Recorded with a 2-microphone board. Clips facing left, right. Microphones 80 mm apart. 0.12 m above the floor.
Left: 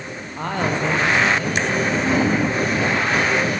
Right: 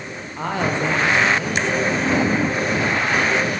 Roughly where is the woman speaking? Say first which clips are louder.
Even; centre.